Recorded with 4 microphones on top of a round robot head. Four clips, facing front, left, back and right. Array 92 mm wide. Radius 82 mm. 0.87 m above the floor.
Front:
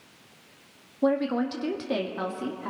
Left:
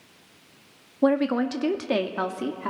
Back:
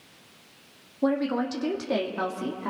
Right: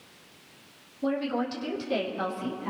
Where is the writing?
I don't hear writing.